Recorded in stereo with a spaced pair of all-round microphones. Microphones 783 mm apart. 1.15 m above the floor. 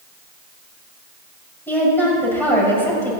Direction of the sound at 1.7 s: Centre (ahead or behind).